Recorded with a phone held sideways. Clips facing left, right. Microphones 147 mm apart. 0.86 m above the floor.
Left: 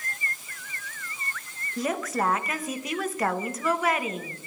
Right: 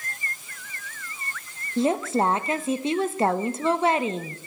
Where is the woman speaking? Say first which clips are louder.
Right 5 dB; 30° right (ahead or behind), 0.5 m.